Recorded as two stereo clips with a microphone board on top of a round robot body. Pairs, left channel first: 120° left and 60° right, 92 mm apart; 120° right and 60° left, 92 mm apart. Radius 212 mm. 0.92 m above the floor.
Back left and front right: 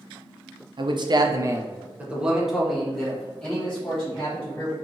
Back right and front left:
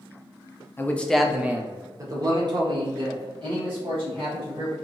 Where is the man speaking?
60° right, 0.7 m; by 4.7 s 45° left, 2.0 m.